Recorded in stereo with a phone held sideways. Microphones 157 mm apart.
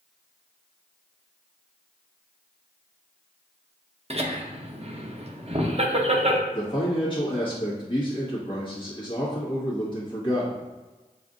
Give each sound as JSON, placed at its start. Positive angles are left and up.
{"t": 4.1, "sound": "laughter", "side_deg": -40, "distance_m": 0.8}
{"t": 6.5, "sound": "a man speaking", "side_deg": 30, "distance_m": 1.4}